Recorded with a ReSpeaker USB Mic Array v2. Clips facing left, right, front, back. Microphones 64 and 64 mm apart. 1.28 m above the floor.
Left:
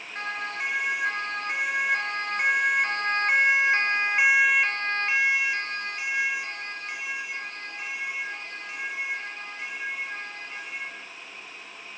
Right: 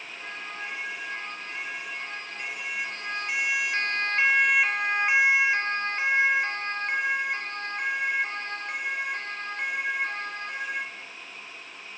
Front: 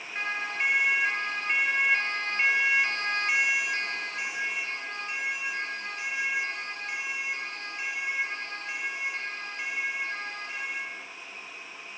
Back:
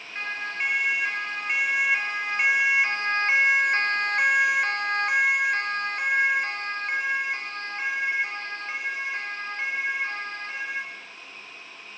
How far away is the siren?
About 6.5 m.